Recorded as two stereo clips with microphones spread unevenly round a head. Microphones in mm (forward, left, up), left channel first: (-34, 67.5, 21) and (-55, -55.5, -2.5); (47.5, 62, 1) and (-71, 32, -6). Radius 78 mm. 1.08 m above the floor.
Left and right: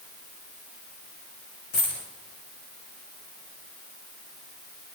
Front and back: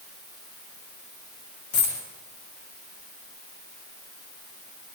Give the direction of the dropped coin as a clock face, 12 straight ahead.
11 o'clock.